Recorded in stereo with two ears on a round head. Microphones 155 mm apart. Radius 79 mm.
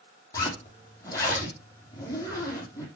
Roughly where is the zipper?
Centre.